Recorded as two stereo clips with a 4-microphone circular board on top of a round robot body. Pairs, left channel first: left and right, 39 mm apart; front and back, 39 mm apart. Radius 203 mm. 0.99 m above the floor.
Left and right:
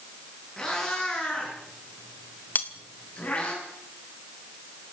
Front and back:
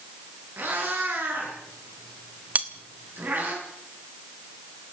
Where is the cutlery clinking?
130° left, 1.3 m.